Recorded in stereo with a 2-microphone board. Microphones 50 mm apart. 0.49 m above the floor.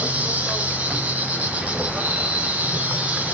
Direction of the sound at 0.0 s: 30° right (ahead or behind).